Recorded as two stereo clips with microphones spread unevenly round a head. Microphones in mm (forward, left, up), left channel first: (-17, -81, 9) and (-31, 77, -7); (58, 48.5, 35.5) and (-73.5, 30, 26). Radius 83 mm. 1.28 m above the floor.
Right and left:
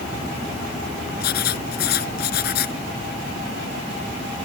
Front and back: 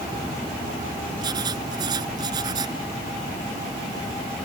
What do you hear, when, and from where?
1.2 s writing: 105° right